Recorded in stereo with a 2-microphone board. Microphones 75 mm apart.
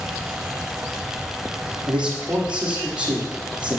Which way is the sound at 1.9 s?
15° right (ahead or behind).